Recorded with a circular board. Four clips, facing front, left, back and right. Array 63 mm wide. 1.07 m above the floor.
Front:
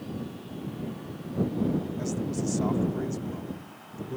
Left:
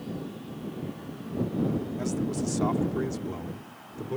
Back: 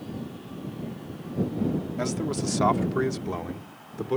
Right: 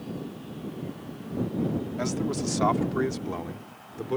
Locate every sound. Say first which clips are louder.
2.0 s a man speaking: right 1 dB, back 2 dB; 140° right; by 4.2 s 150° right